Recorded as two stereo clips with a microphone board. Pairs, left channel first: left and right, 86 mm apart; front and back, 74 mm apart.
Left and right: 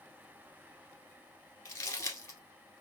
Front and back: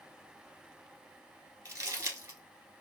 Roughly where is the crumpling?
Behind left.